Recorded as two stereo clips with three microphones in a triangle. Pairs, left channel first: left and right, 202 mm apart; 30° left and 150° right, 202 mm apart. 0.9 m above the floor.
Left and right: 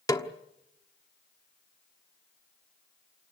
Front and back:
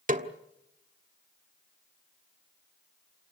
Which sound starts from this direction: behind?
A snare drum, at 0.1 s.